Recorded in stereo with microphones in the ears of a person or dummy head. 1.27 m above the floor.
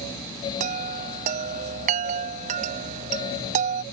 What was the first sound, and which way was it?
A chime, 45° right (ahead or behind).